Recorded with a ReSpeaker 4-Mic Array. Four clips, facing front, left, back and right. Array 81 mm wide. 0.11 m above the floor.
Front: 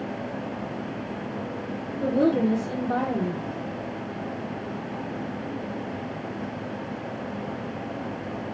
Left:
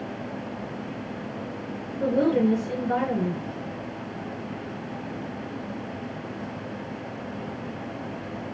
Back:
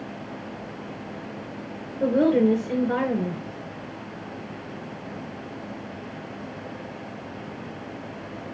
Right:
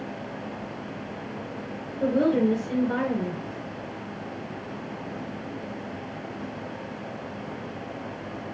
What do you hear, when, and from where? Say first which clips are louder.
2.0 s a woman speaking: even, back 3 dB; 175° left, 1.7 m